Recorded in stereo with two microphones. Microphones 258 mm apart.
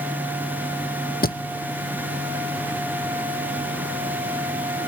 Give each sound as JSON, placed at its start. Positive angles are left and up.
{"t": 1.2, "sound": "a thud", "side_deg": 35, "distance_m": 0.9}